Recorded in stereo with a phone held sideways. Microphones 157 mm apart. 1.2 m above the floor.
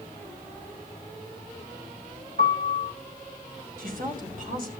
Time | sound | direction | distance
2.4 | a piano | 75° right (ahead or behind) | 7 m
3.8 | a woman speaking | 65° right (ahead or behind) | 4.5 m